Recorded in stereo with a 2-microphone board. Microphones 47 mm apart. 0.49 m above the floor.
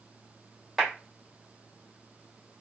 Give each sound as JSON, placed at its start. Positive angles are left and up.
{"t": 0.8, "sound": "a clap", "side_deg": -5, "distance_m": 1.7}